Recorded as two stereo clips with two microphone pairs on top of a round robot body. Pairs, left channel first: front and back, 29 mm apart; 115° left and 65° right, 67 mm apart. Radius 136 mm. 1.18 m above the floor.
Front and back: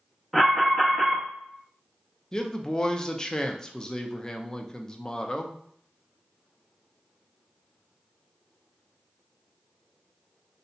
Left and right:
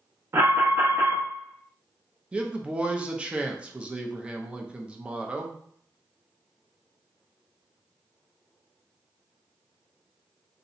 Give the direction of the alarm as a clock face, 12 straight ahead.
2 o'clock.